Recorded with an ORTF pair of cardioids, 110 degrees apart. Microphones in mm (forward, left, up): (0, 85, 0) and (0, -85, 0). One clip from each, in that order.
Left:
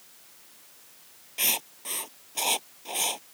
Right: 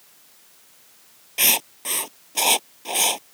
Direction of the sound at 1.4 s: 45° right.